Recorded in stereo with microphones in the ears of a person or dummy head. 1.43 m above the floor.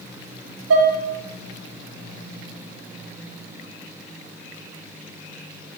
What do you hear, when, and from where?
0.7 s dishes clattering: 75° right (ahead or behind), 1.5 m